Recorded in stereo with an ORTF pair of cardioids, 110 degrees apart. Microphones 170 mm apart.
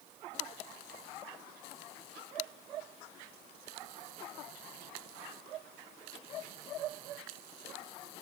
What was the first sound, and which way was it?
Only background noise.